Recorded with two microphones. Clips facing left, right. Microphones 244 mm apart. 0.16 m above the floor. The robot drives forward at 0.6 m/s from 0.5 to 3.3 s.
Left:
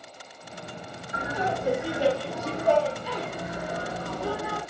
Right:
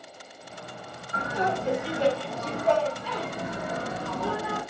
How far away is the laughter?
About 1.7 m.